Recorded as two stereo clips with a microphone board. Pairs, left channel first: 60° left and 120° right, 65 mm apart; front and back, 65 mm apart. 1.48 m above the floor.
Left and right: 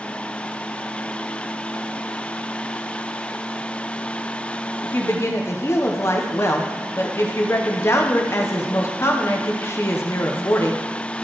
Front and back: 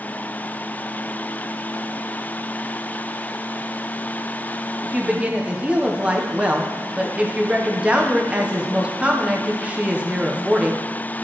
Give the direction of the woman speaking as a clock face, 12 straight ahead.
8 o'clock.